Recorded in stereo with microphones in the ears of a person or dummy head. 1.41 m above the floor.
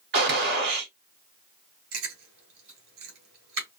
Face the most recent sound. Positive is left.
turn(degrees=-60)  # may be behind; listen again after turning